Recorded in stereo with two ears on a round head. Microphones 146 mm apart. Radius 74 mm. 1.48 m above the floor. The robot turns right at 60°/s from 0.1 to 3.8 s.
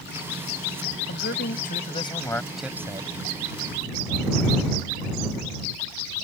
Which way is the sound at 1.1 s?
90° left.